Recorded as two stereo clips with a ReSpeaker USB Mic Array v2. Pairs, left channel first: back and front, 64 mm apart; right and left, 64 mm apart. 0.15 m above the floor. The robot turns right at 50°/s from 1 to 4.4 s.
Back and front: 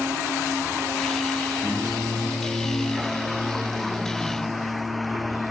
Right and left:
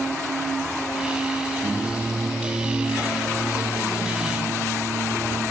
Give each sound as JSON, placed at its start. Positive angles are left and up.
{"t": 1.6, "sound": "singing", "azimuth_deg": 120, "distance_m": 8.5}